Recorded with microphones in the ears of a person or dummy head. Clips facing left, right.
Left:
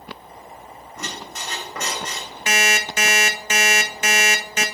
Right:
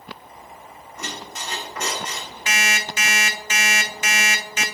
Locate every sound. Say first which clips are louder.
1.0 s a squeak: even; 45° left (ahead or behind), 2.5 m
2.5 s an alarm clock: left 4 dB; 45° left (ahead or behind), 0.7 m